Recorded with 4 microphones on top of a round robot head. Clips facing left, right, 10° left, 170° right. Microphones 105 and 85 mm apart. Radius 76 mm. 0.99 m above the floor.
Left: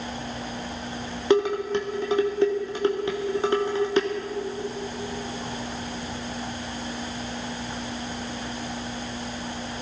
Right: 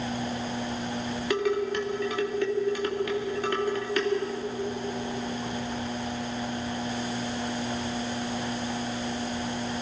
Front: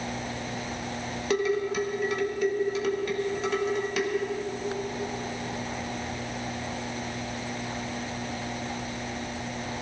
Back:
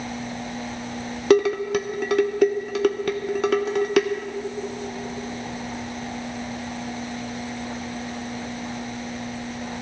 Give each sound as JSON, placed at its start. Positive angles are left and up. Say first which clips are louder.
{"t": 1.3, "sound": "dishes clattering", "louder": "left 5 dB, back 8 dB", "azimuth_deg": 160, "distance_m": 0.9}